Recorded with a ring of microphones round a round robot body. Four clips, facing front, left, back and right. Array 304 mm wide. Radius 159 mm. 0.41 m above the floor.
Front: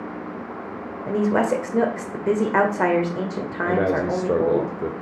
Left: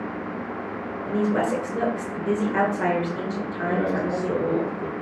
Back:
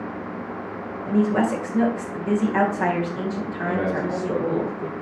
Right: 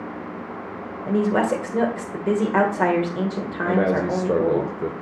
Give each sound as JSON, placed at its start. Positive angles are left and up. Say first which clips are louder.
{"t": 1.1, "sound": "a woman speaking", "louder": "right 3 dB, even", "azimuth_deg": -35, "distance_m": 2.0}
{"t": 3.6, "sound": "a man speaking", "louder": "right 4 dB, front 4 dB", "azimuth_deg": -45, "distance_m": 1.0}